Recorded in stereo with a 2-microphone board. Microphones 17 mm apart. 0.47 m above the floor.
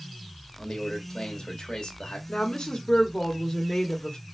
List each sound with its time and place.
0.6 s a man speaking: 45° left (ahead or behind), 1.3 m
2.3 s a woman speaking: 40° left (ahead or behind), 1.3 m